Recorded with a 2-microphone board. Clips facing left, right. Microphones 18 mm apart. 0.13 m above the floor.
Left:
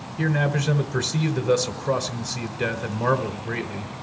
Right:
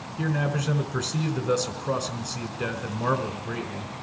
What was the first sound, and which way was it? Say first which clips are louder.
A man speaking: left 4 dB; 5° left (ahead or behind).